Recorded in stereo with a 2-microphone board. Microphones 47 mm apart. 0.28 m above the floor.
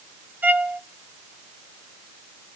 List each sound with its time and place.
0.4 s a violin: 40° right (ahead or behind), 1.3 m